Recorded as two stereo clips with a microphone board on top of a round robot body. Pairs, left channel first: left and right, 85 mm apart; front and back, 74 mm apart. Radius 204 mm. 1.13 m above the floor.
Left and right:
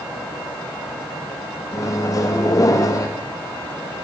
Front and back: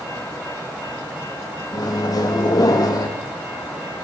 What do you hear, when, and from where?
1.7 s a microwave: 40° left, 1.4 m